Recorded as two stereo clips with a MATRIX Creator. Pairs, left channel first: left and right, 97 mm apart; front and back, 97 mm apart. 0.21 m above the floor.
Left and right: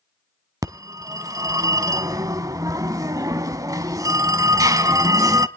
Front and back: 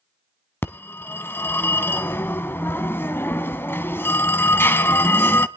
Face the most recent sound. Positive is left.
turn(degrees=-55)